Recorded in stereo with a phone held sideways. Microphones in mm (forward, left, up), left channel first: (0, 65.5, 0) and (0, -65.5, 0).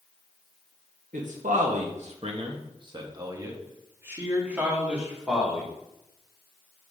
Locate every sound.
1.1 s a man speaking: 80° right, 1.0 m; by 5.7 s 5° right (ahead or behind), 2.5 m